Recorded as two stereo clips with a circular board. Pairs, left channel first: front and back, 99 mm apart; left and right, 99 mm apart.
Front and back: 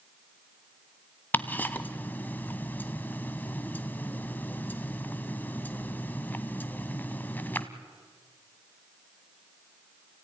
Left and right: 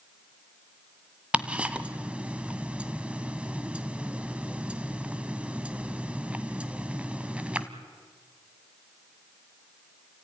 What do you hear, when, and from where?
1.3 s ticking: 35° right, 1.2 m